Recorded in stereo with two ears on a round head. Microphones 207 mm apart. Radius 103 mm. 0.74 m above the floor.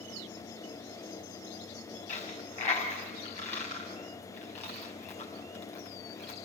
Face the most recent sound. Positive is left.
turn(degrees=30)  # may be behind; listen again after turning